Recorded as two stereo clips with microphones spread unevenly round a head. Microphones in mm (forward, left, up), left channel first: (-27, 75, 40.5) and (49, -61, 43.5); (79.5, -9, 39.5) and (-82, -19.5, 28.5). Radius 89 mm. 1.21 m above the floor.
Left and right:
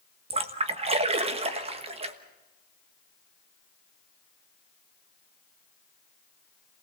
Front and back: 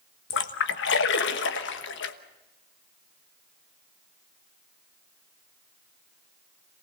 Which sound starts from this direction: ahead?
A splash, at 0.3 s.